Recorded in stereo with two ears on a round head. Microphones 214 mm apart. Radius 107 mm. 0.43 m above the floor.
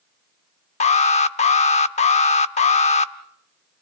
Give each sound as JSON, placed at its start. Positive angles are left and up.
{"t": 0.8, "sound": "an alarm", "side_deg": 30, "distance_m": 0.8}